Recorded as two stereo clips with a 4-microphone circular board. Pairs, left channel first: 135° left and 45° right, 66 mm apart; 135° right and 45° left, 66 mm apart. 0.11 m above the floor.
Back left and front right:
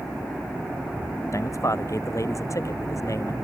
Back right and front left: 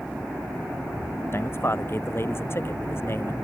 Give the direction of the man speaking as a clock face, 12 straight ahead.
6 o'clock.